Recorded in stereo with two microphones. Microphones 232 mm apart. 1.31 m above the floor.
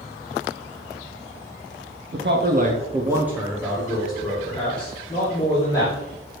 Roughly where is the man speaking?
Right.